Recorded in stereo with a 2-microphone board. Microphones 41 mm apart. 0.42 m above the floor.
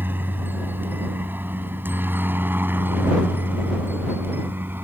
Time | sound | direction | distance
0.0 | a helicopter | 60° right (ahead or behind) | ?